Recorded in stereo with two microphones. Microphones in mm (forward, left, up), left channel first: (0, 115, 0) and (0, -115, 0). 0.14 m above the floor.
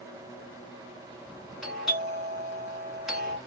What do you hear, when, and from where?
1.6 s a doorbell: centre (ahead or behind), 1.7 m